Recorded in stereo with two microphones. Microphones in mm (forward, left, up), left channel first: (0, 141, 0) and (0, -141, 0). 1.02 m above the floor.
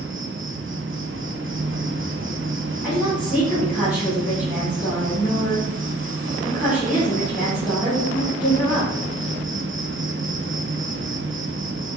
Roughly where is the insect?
Right.